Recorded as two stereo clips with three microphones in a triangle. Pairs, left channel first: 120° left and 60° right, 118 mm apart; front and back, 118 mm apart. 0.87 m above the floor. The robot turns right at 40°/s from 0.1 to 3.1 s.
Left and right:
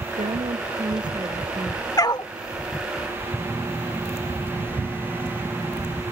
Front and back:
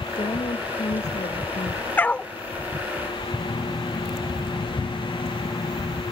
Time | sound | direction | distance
0.2 | a woman speaking | 45° right | ?
2.0 | a dog barking | 70° left | ?
3.4 | a phone buzzing | 40° left | ?